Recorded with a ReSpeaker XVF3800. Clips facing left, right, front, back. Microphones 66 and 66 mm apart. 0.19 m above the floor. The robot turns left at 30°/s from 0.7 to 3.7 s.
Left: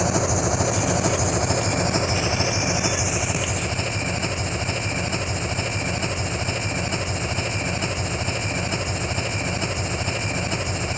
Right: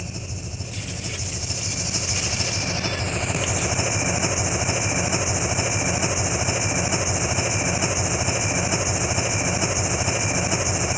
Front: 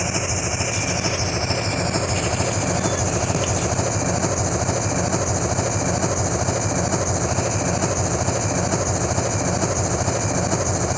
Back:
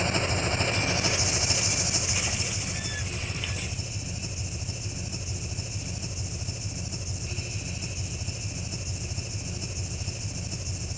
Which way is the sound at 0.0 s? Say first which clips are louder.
Left 14 dB, front 3 dB; 80° left.